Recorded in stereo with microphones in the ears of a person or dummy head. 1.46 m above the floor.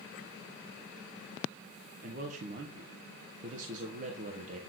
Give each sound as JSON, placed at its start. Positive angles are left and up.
{"t": 2.0, "sound": "a man speaking", "side_deg": -45, "distance_m": 0.9}